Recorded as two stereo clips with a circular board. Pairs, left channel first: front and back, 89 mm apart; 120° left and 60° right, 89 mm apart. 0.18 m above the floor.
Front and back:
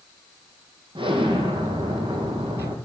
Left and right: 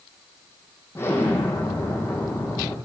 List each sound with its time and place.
0.9 s an explosion: 175° right, 4.5 m